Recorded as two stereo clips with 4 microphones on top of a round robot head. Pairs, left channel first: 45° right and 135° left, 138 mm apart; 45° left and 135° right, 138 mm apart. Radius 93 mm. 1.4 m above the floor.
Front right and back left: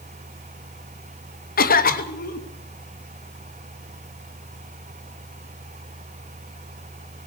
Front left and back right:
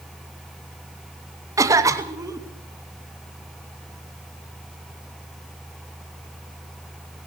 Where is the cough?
65° right, 3 m.